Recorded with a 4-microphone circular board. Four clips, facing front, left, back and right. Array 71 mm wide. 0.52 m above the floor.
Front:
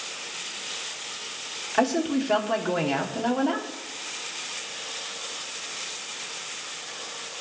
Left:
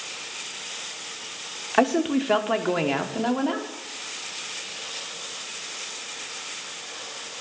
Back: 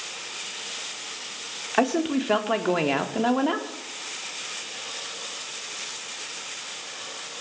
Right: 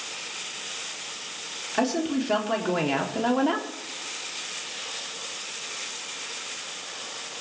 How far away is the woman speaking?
About 1.2 m.